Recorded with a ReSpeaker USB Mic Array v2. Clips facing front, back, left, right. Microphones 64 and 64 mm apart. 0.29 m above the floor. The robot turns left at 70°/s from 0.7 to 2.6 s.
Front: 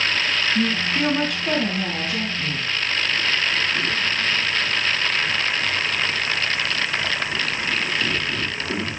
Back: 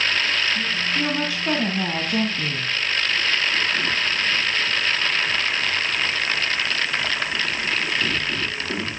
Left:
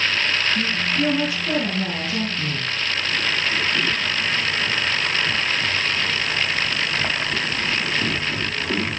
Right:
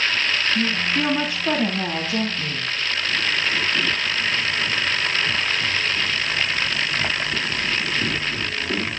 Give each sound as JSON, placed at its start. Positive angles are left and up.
{"t": 0.6, "sound": "a woman speaking", "azimuth_deg": -55, "distance_m": 2.5}